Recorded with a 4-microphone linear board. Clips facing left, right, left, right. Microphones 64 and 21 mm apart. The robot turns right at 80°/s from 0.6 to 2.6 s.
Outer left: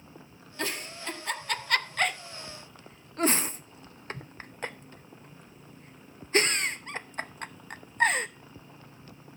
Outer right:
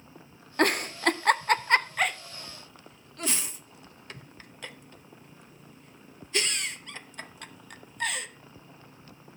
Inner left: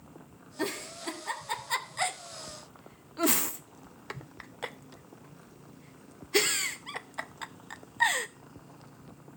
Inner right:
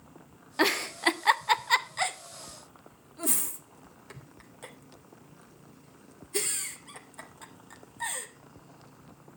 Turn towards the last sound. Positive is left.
turn(degrees=40)  # may be behind; listen again after turning